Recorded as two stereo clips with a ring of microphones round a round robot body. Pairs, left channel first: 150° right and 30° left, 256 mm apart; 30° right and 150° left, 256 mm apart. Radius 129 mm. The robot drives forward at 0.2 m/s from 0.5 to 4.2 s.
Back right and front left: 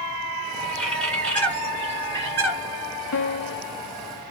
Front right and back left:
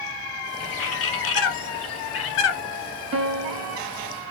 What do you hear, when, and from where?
0.6 s a bird: 60° right, 2 m; by 2.6 s 70° right, 2 m
3.1 s a piano: 170° right, 0.6 m